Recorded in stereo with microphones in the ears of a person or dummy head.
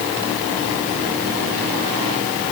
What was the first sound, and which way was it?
Only background noise.